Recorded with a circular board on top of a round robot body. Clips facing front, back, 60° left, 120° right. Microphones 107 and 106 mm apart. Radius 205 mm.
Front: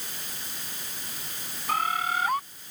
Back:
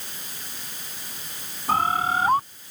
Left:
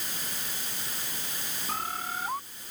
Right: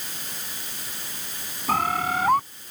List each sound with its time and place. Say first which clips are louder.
1.7 s a bird: back 5 dB, right 11 dB; 125° right